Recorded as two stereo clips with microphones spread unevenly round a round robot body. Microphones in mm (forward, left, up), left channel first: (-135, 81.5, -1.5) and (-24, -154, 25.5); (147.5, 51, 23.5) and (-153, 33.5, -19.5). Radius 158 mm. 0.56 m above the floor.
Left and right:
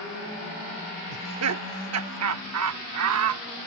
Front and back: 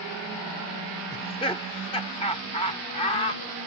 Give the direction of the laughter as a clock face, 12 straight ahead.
2 o'clock.